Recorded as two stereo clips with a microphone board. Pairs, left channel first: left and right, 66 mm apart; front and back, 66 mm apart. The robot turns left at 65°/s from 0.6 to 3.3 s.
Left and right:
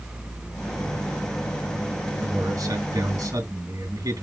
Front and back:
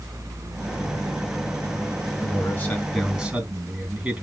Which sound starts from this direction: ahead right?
A man speaking, at 2.1 s.